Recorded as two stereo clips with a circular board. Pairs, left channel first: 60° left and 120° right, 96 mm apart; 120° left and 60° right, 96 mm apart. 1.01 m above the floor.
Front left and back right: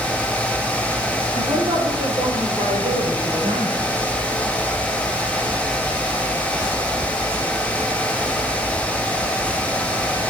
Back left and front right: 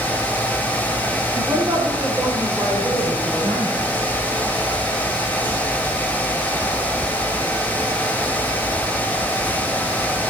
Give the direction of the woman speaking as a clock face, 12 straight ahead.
4 o'clock.